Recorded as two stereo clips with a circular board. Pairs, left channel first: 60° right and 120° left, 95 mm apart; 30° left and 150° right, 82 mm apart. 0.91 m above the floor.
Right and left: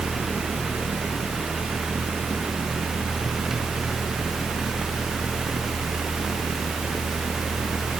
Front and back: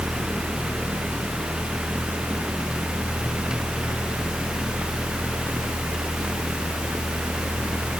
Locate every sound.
Only background noise.